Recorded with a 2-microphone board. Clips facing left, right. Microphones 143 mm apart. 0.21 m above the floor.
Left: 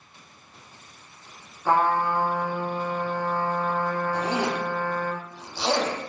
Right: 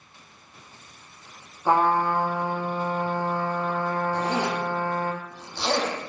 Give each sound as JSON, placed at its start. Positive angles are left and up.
{"t": 1.6, "sound": "a trumpet", "side_deg": -15, "distance_m": 4.0}
{"t": 4.1, "sound": "a zipper", "side_deg": 5, "distance_m": 5.0}